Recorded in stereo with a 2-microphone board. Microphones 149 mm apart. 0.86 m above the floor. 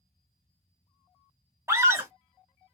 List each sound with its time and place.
1.7 s a scream: 20° right (ahead or behind), 0.9 m